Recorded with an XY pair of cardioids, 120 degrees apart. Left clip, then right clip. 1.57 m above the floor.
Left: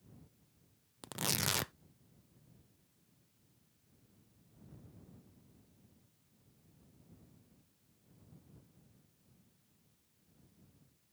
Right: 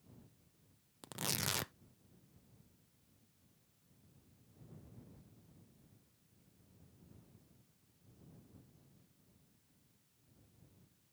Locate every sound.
1.0 s tearing paper: 20° left